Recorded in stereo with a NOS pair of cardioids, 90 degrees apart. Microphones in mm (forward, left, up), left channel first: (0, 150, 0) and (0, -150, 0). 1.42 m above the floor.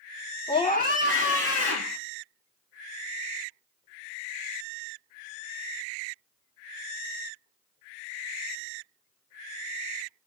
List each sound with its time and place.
0.5 s a scream: 15° left, 0.7 m; by 2.0 s 60° left, 1.3 m